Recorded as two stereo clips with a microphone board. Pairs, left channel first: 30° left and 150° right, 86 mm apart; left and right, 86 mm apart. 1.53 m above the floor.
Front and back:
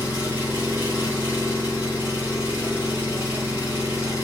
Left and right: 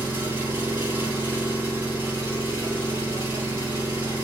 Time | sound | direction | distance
0.0 | an engine running | 30° right | 1.2 m